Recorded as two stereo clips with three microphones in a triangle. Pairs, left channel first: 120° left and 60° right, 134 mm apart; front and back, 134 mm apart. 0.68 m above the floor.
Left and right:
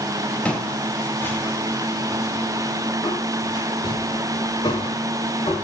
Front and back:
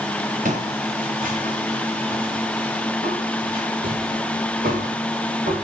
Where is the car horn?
I don't hear a car horn.